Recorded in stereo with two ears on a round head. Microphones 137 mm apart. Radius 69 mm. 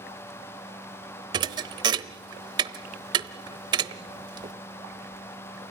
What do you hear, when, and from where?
1.3 s a thud: 30° right (ahead or behind), 0.8 m